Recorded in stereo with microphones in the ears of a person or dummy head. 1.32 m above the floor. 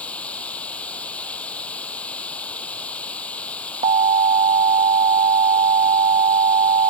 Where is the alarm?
30° right (ahead or behind).